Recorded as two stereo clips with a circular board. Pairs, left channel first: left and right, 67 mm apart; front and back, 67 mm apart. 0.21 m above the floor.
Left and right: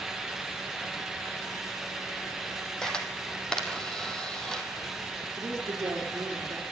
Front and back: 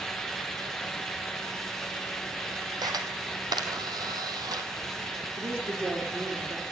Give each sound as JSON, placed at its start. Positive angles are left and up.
{"t": 2.8, "sound": "a camera shutter", "azimuth_deg": 170, "distance_m": 2.5}
{"t": 5.4, "sound": "a woman speaking", "azimuth_deg": -130, "distance_m": 6.0}